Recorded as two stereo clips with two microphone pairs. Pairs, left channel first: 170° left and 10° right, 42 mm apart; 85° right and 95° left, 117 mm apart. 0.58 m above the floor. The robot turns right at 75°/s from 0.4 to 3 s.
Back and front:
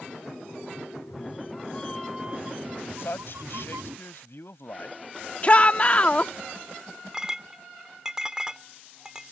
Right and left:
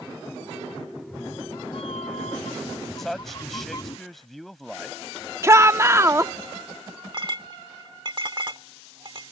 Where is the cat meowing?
Straight behind; by 4.0 s 30° right.